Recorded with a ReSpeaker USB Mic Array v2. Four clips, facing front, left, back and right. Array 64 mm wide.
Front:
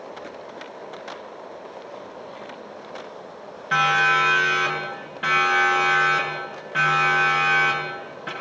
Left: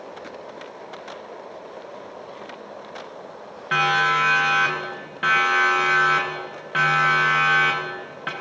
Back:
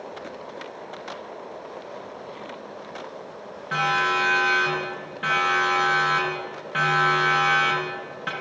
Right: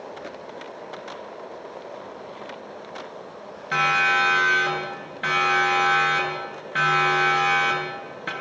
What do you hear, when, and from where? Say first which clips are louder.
3.7 s a siren: left 1 dB, front 4 dB; 80° left, 8 m; by 8.3 s 105° left, 7.5 m